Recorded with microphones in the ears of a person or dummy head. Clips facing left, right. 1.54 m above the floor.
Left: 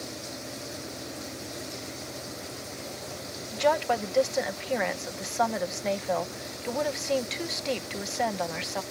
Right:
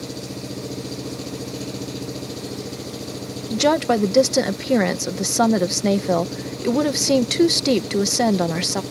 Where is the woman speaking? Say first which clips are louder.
Right 7 dB; 55° right (ahead or behind).